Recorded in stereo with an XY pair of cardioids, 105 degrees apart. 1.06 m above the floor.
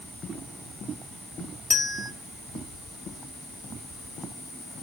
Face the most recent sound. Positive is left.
turn(degrees=5)